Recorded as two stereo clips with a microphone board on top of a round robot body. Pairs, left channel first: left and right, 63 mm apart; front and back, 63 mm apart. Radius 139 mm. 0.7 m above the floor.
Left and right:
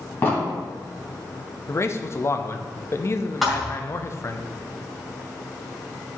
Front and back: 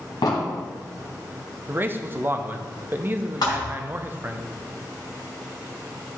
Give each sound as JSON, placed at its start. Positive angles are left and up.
{"t": 0.2, "sound": "an explosion", "azimuth_deg": 30, "distance_m": 1.2}
{"t": 1.7, "sound": "a man speaking", "azimuth_deg": 125, "distance_m": 0.8}
{"t": 3.4, "sound": "a thud", "azimuth_deg": -5, "distance_m": 1.9}